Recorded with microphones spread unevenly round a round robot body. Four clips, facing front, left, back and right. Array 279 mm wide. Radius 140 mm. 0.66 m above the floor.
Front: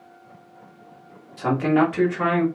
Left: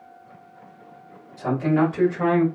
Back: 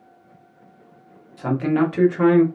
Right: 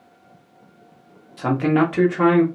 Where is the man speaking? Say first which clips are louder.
Right 2 dB, front 1 dB; 85° right, 1.6 m; by 2.5 s 115° right, 1.8 m.